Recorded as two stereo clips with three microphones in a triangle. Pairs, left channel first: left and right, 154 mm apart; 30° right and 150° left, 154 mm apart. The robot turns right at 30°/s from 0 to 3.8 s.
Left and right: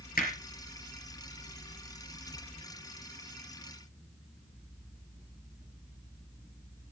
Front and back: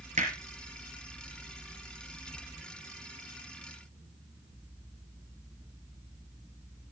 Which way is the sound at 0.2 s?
110° left.